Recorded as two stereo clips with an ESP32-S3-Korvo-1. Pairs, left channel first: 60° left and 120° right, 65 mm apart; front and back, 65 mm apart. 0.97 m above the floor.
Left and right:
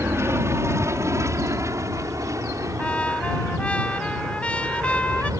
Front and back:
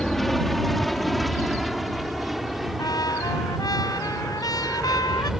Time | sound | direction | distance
0.0 | an aircraft | 85° right | ?
2.8 | a trumpet | 10° right | ?